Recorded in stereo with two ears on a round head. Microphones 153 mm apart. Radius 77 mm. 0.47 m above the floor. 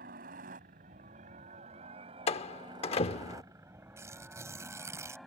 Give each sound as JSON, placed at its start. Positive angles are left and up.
{"t": 0.0, "sound": "a helicopter", "side_deg": -55}
{"t": 2.3, "sound": "a door slam", "side_deg": 35}
{"t": 4.0, "sound": "tearing paper", "side_deg": -15}